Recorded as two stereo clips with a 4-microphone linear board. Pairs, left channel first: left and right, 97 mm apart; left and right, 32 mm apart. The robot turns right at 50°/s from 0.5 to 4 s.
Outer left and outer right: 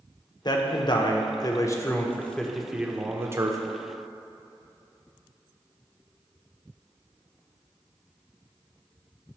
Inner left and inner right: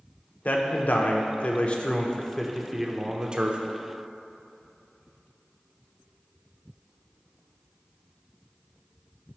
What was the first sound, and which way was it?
A man speaking, 75° left.